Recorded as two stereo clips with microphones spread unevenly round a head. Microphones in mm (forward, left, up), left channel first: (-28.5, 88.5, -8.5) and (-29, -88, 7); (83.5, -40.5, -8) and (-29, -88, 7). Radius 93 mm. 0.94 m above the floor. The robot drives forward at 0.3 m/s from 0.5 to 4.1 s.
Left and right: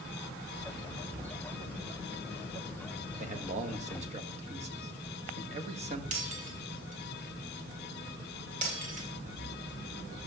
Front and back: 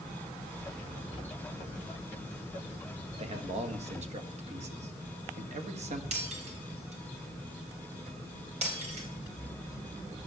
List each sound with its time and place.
3.2 s a man speaking: 130° right, 1.5 m; by 6.0 s 140° right, 1.6 m
6.1 s breaking glass: 135° right, 3.5 m